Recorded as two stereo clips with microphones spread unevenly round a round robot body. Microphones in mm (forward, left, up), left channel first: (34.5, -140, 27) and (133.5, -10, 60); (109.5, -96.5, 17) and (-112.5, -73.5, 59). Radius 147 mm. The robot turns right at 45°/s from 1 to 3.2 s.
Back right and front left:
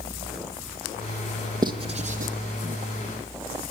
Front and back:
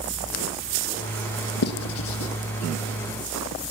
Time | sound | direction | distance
1.6 | writing | 15° right | 3.5 m